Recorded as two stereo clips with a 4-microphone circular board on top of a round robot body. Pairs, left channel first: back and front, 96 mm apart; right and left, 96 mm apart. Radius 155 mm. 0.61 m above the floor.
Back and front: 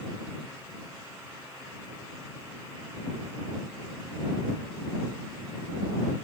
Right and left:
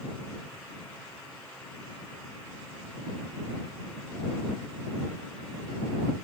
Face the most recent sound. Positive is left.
No sound to turn to.